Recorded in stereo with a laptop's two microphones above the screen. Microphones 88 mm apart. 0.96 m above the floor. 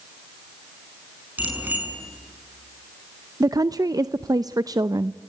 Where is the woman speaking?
45° right (ahead or behind), 0.5 m.